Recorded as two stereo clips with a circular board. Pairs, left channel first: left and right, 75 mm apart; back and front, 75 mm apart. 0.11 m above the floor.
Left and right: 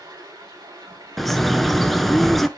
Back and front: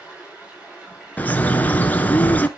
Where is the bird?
175° left, 0.7 m.